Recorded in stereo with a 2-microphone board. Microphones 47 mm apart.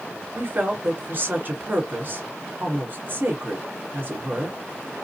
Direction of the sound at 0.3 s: 40° right (ahead or behind).